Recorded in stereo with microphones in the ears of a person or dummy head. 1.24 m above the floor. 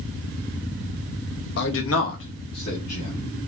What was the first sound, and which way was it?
A man speaking, 60° left (ahead or behind).